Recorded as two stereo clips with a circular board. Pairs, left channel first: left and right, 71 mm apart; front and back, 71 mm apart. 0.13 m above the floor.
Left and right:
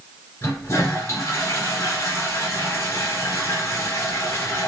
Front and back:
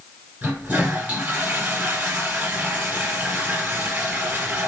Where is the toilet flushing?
120° left, 2.0 m.